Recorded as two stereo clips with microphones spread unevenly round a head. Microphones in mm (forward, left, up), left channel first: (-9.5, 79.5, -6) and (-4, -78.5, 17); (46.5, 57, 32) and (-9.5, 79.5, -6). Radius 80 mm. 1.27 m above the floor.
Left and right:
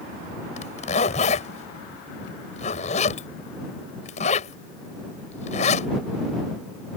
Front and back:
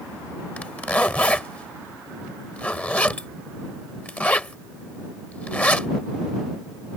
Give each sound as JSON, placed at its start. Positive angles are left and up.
{"t": 0.6, "sound": "a zipper", "azimuth_deg": 40}